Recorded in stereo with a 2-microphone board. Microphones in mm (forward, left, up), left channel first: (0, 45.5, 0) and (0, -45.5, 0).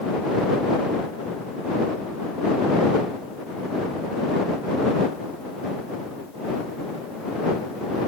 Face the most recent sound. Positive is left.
No sound to turn to.